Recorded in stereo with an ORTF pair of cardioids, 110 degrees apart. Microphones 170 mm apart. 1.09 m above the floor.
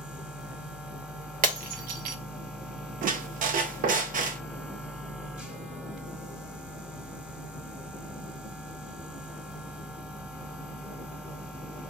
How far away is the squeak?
About 0.7 m.